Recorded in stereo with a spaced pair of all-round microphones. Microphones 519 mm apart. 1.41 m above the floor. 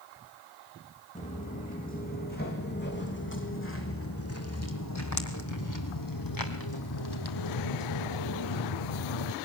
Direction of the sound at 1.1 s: 15° left (ahead or behind).